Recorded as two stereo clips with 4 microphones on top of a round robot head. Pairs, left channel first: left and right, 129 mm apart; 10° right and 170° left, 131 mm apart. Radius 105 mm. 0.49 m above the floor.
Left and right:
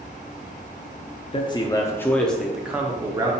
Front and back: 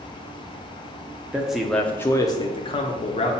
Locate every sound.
1.3 s a man speaking: 95° left, 0.8 m; by 3.3 s 30° right, 1.0 m